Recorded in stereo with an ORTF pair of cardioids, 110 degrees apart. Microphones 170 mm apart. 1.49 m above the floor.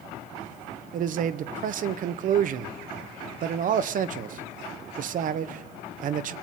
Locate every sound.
0.9 s a man speaking: 55° right, 1.0 m